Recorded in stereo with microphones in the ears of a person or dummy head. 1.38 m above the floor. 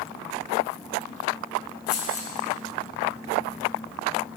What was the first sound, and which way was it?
Keys jangling, 50° left (ahead or behind).